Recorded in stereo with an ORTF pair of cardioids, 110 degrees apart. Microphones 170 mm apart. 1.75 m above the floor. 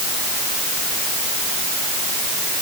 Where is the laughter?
I don't hear laughter.